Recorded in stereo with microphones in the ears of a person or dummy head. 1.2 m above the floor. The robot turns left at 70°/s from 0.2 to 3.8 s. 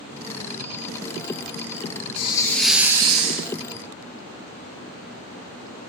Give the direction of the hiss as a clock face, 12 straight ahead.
11 o'clock.